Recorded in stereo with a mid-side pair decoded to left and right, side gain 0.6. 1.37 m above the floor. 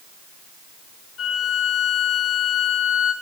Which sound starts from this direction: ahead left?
A violin, at 1.2 s.